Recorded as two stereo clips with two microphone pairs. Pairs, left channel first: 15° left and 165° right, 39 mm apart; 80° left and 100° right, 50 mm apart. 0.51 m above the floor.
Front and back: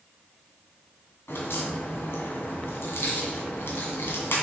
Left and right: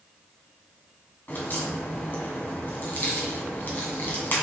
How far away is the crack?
About 2.5 m.